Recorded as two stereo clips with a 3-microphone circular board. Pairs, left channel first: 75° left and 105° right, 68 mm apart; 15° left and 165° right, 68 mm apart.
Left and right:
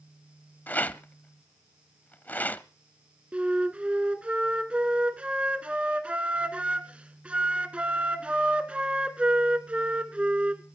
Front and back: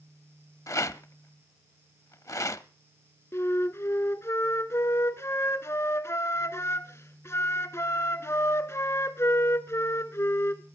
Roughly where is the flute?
Ahead right.